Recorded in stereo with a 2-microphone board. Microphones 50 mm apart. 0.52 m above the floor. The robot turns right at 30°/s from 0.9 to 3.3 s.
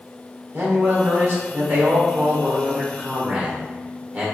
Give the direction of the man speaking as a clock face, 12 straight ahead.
3 o'clock.